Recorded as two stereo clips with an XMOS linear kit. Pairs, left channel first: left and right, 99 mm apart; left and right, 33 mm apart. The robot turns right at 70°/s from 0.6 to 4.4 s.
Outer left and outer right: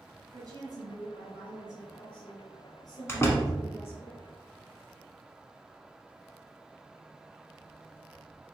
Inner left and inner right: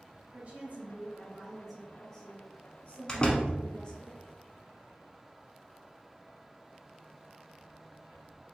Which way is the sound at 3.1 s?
25° left (ahead or behind).